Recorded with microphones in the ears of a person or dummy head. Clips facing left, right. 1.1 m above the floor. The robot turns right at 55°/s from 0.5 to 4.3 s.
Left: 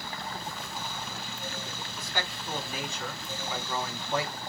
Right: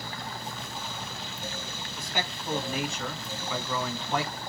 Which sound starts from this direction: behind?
A man speaking, at 2.0 s.